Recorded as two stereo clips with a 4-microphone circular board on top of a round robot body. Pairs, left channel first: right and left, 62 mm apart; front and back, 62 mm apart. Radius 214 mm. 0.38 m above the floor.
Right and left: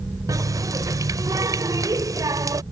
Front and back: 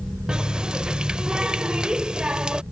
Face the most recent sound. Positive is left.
turn(degrees=105)